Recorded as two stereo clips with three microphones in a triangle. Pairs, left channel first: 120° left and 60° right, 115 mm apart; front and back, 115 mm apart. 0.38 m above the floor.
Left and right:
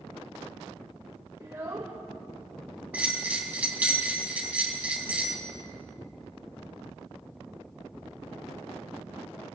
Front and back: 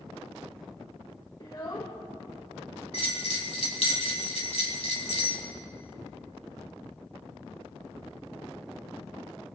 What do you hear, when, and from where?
1.4 s a child speaking: 20° right, 1.1 m
2.9 s a bell: 15° left, 2.5 m